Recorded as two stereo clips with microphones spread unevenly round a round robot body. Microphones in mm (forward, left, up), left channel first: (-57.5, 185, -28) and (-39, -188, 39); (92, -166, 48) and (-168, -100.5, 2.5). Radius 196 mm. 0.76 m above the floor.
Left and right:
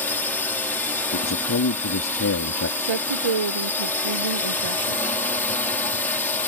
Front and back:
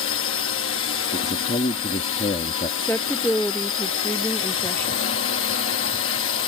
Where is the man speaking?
55° left.